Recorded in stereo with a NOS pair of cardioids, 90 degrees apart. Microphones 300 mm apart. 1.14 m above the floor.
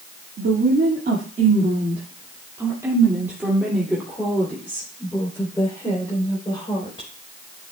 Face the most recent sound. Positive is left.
turn(degrees=15)